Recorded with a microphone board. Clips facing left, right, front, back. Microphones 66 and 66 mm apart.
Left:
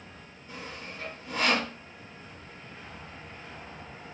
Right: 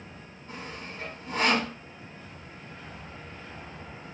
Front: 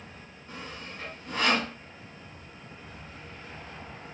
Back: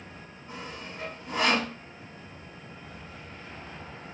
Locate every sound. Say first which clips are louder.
0.5 s sawing: right 1 dB, back 1 dB; 110° right, 2.5 m